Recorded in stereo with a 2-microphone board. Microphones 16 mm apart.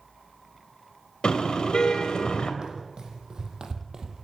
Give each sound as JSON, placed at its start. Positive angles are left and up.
{"t": 1.2, "sound": "a car horn", "side_deg": 60, "distance_m": 3.5}
{"t": 2.6, "sound": "running footsteps", "side_deg": -50, "distance_m": 4.5}